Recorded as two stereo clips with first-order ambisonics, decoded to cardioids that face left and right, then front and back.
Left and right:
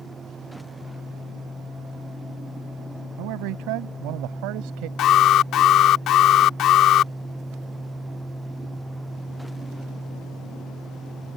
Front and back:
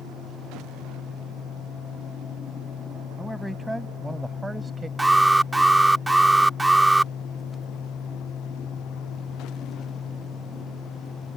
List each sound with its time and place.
3.2 s a man speaking: 90° right; by 4.9 s 105° right
5.0 s an alarm: 100° left